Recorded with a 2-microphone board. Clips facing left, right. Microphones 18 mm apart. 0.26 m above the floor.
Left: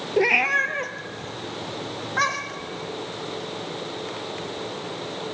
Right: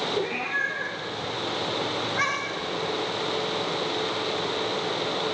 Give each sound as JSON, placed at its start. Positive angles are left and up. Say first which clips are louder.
{"t": 0.2, "sound": "a cat meowing", "louder": "left 7 dB", "side_deg": 80, "distance_m": 0.8}